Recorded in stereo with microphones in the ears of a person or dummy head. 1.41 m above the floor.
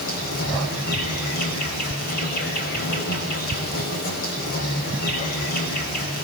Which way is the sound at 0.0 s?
55° left (ahead or behind).